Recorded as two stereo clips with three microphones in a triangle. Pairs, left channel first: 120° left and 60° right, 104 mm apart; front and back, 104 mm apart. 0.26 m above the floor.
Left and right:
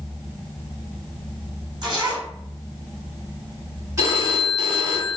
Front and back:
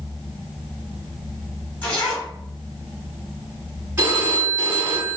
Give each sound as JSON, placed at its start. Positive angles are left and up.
{"t": 1.8, "sound": "a zipper", "azimuth_deg": -65, "distance_m": 1.9}
{"t": 4.0, "sound": "a phone ringing", "azimuth_deg": -110, "distance_m": 1.8}